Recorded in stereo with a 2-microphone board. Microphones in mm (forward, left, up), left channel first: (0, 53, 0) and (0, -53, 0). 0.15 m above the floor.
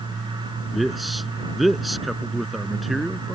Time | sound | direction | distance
0.7 | a man speaking | centre (ahead or behind) | ?